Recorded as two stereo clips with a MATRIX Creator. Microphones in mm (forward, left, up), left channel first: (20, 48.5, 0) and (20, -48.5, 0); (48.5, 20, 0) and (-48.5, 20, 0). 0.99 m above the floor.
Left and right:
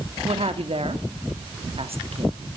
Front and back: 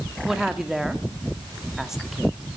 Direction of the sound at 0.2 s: 95° right.